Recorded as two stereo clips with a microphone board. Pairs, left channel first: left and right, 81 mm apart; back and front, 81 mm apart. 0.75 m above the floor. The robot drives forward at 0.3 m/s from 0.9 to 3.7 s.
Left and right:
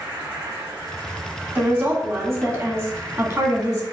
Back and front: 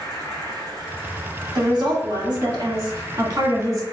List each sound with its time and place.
0.0 s an insect: 20° right, 2 m; by 3.9 s 45° right, 1.5 m
1.6 s a woman speaking: 30° right, 1.7 m; by 3.8 s 45° right, 1.2 m